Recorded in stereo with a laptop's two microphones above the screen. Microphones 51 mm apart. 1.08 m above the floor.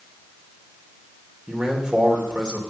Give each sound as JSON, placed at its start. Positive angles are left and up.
{"t": 1.5, "sound": "a man speaking", "side_deg": -15, "distance_m": 3.0}